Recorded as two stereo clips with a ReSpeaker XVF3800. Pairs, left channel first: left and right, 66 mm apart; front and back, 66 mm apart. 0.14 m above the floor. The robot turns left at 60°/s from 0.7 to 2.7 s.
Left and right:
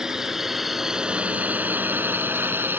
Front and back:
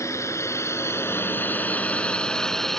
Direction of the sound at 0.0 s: 10° right.